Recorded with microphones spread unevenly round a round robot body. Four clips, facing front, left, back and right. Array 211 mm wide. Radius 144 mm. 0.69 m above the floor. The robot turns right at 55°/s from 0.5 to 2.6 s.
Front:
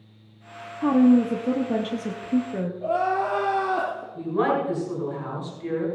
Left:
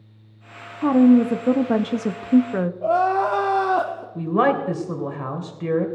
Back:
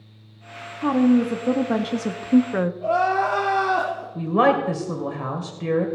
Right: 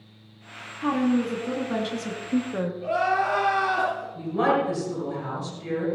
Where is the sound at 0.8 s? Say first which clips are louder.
Left 9 dB, front 1 dB; 70° left, 0.8 m; by 2.7 s 165° left, 0.8 m.